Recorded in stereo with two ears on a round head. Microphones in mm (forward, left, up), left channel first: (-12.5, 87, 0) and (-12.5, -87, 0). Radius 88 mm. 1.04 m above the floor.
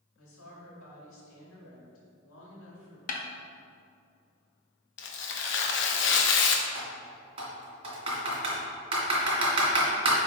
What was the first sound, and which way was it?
A woman speaking, 80° left.